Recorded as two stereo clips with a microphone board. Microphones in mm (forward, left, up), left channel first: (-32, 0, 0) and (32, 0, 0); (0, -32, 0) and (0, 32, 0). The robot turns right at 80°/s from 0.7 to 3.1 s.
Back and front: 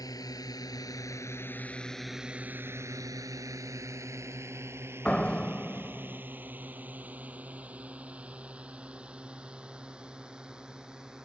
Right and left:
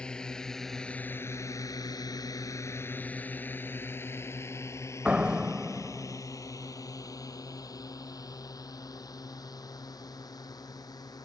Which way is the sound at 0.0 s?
165° right.